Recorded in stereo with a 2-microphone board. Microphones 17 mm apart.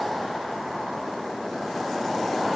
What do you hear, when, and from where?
Only background noise.